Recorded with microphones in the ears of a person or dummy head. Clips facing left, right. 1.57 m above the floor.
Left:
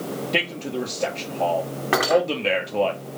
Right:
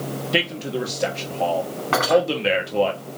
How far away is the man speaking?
About 0.9 m.